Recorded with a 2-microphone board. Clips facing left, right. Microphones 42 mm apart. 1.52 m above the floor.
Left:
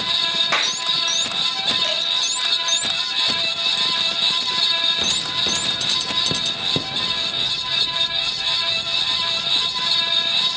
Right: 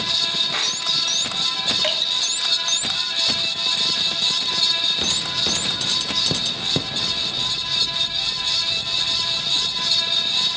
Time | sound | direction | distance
0.5 | a clap | 85° left | 3 m
1.8 | dripping | 40° right (ahead or behind) | 4.5 m